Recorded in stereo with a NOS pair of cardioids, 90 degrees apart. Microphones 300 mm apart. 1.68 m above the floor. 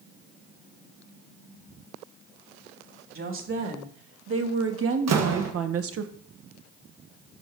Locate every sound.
3.1 s a woman speaking: 45° right, 2.5 m; by 6.1 s 55° right, 1.1 m
5.1 s a door slam: 65° right, 1.6 m